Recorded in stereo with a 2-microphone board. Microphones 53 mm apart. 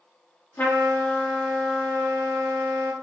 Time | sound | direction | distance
0.6 | a trumpet | 40° left (ahead or behind) | 1.6 m